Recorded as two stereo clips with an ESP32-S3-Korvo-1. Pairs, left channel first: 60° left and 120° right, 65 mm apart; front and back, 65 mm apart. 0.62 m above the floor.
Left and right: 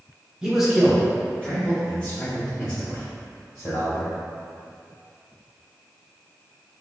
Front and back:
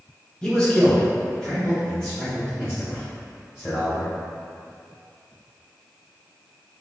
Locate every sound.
0.4 s a man speaking: 55° right, 1.3 m; by 4.1 s 90° left, 2.5 m